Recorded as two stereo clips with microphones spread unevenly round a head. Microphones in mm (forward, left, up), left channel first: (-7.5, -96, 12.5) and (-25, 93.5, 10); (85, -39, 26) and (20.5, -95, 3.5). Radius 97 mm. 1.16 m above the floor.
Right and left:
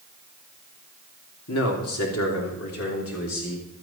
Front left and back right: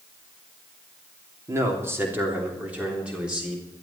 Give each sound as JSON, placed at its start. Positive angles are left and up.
{"t": 1.5, "sound": "a man speaking", "azimuth_deg": -85, "distance_m": 3.0}